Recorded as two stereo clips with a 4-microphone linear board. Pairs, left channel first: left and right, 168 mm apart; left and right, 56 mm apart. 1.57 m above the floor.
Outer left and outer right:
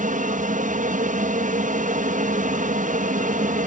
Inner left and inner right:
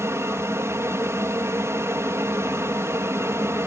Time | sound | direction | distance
0.0 | an aircraft | 50° right (ahead or behind) | ?